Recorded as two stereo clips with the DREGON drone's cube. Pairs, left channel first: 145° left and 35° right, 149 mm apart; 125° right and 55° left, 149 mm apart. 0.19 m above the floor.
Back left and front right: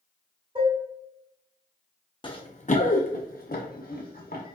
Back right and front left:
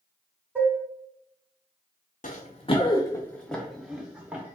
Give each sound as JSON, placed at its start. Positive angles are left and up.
{"t": 0.6, "sound": "dishes clattering", "azimuth_deg": -15, "distance_m": 1.1}
{"t": 2.2, "sound": "running footsteps", "azimuth_deg": -155, "distance_m": 0.6}